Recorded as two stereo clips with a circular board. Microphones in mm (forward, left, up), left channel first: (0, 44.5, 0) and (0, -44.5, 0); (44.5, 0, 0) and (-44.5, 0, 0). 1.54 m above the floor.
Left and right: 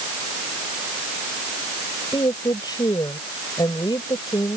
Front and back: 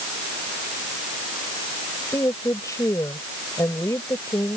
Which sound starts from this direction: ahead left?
A woman speaking, at 2.1 s.